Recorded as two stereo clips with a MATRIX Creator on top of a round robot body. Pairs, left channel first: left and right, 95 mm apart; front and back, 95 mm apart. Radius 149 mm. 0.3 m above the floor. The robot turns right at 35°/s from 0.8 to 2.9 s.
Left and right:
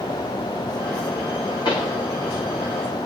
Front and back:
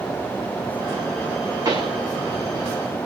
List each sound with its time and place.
1.6 s a pop: 130° left, 9.5 m; by 2.0 s 140° left, 9.5 m